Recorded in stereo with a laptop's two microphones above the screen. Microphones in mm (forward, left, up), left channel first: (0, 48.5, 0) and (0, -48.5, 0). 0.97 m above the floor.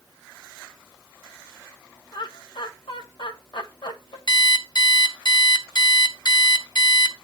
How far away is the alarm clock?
About 1.6 m.